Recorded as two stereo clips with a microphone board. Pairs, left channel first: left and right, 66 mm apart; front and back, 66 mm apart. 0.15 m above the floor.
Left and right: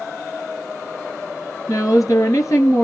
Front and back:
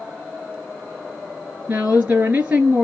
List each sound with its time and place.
1.7 s a woman speaking: 120° left, 3 m